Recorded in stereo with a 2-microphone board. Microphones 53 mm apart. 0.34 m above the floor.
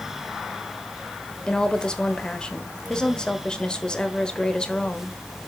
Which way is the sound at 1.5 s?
20° left (ahead or behind).